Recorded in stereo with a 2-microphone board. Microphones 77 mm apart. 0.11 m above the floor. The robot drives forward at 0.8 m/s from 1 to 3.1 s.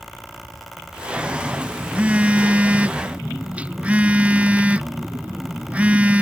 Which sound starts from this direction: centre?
A phone buzzing, at 1.2 s.